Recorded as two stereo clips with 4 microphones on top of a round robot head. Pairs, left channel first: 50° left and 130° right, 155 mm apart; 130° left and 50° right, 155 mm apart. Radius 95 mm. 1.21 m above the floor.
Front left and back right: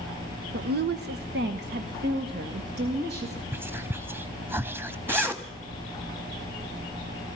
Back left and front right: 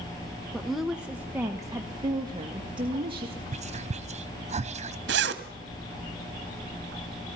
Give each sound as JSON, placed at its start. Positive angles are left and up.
{"t": 0.5, "sound": "a woman speaking", "azimuth_deg": -145, "distance_m": 1.0}
{"t": 3.5, "sound": "whispering", "azimuth_deg": -60, "distance_m": 0.7}
{"t": 5.1, "sound": "a zipper", "azimuth_deg": -50, "distance_m": 1.3}